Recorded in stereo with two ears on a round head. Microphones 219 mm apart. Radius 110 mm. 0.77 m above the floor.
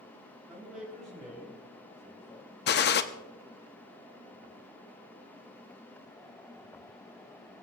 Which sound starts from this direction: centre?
A man speaking, at 0.5 s.